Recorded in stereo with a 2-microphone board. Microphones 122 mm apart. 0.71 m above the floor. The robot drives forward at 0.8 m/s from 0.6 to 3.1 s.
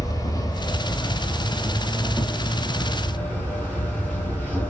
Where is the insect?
30° left (ahead or behind), 1.4 m; by 4.7 s 10° left (ahead or behind), 3.5 m.